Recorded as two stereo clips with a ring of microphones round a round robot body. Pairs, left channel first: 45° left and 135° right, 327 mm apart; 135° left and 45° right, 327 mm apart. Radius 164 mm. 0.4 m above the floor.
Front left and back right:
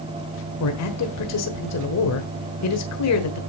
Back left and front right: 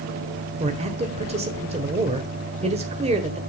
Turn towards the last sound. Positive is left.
turn(degrees=20)